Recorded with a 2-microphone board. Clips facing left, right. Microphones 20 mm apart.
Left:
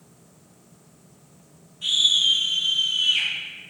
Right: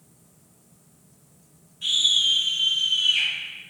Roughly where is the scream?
Centre.